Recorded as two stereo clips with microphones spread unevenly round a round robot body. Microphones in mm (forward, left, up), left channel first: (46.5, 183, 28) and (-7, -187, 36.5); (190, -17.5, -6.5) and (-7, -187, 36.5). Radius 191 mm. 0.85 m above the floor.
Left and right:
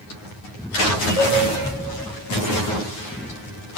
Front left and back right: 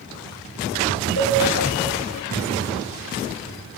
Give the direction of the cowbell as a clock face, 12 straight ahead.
11 o'clock.